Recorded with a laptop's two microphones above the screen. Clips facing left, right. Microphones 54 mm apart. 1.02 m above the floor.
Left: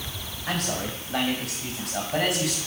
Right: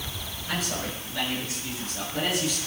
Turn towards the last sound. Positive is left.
turn(degrees=80)